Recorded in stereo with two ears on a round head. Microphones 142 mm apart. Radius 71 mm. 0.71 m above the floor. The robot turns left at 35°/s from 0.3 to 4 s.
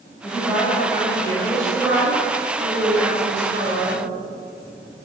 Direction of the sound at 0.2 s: 50° left.